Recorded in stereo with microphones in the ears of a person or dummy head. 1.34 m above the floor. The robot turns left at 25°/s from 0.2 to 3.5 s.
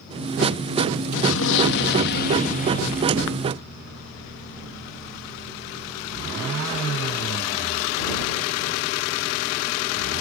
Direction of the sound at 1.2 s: 80° left.